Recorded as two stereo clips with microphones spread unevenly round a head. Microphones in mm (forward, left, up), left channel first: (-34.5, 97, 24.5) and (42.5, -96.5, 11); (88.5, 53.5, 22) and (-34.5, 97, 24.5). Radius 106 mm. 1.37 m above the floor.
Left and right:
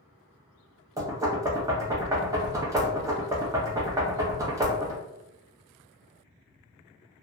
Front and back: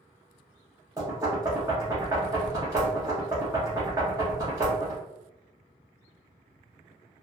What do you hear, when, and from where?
1.0 s knocking: 140° right, 0.6 m